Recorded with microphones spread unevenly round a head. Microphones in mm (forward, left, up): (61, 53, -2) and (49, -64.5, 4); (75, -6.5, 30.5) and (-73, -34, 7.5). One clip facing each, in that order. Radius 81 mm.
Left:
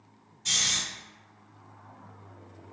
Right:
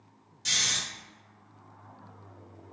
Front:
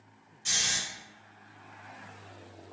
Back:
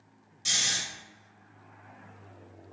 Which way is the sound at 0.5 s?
120° right.